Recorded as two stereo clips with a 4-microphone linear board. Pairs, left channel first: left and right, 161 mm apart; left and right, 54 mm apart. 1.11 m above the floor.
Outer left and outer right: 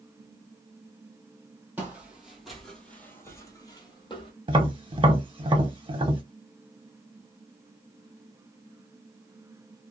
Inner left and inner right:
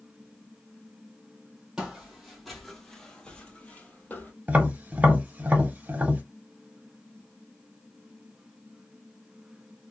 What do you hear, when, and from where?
1.8 s footsteps: 10° right (ahead or behind), 1.5 m; by 4.3 s 35° left (ahead or behind), 1.3 m
4.5 s tapping: 35° right (ahead or behind), 1.0 m